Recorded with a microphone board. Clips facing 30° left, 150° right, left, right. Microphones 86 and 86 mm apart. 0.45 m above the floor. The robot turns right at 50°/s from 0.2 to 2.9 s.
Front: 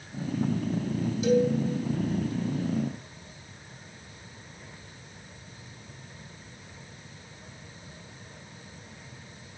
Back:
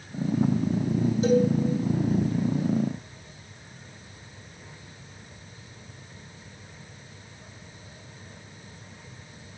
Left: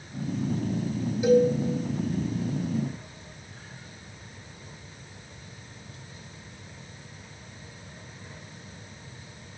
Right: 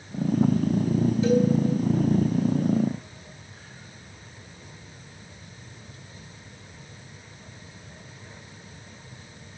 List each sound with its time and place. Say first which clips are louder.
1.2 s a cowbell: back 1 dB, left 4 dB; 160° left, 2 m; by 1.5 s 175° left, 2 m